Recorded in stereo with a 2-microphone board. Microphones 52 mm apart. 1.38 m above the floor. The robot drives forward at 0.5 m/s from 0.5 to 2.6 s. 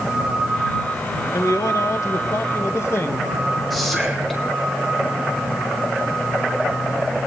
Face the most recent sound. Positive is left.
turn(degrees=0)  # may be behind; listen again after turning